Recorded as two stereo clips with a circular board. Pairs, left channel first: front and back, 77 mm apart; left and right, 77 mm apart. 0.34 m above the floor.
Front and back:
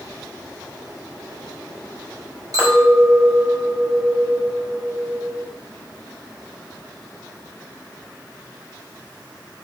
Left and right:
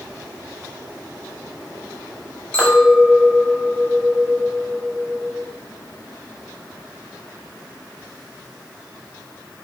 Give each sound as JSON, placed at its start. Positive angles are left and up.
{"t": 2.5, "sound": "a clink", "azimuth_deg": 160, "distance_m": 1.3}